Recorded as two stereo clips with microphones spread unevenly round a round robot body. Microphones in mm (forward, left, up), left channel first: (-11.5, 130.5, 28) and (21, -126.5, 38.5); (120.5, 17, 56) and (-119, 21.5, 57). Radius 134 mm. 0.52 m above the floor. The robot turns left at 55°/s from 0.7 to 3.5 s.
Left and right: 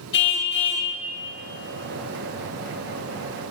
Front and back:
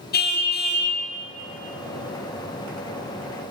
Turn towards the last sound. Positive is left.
turn(degrees=-105)